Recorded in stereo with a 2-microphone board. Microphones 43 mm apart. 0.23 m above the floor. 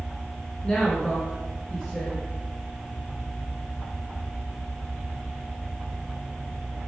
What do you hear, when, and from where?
0.6 s a woman speaking: 15° left (ahead or behind), 2.5 m